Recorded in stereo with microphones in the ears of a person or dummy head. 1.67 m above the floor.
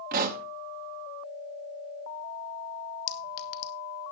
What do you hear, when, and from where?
0.1 s a pop: 45° right (ahead or behind), 1.2 m
3.1 s a clink: 70° left (ahead or behind), 1.6 m